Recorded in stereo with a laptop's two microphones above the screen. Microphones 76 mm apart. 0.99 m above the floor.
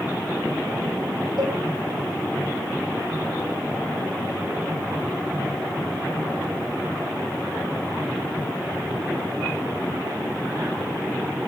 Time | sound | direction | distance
1.4 | a cowbell | 70° right (ahead or behind) | 9 m